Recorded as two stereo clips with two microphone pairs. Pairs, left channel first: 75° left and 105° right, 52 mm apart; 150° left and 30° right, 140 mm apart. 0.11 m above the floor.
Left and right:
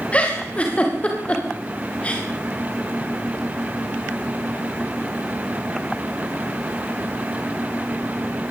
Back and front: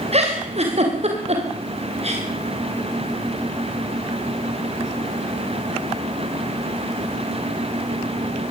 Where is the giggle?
10° left, 7.5 m.